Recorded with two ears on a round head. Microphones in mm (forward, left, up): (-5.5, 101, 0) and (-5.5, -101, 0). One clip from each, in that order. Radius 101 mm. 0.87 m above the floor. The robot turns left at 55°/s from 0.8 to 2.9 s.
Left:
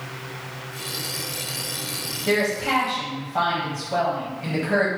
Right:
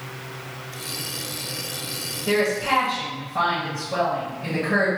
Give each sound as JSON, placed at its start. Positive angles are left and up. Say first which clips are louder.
{"t": 2.3, "sound": "a woman speaking", "louder": "right 1 dB", "azimuth_deg": 70, "distance_m": 1.2}